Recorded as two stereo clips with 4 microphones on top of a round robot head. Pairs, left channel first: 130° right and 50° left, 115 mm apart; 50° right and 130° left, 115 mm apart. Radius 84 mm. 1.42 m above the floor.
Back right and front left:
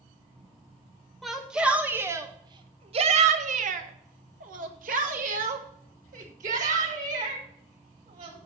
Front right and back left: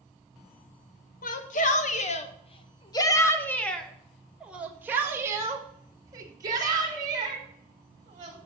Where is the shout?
40° right, 1.6 m; by 8.4 s 75° left, 4 m.